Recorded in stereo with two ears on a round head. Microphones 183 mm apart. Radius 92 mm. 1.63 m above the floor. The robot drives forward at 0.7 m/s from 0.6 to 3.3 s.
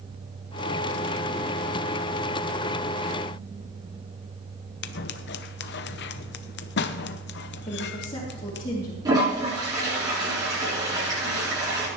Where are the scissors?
55° left (ahead or behind), 0.7 m.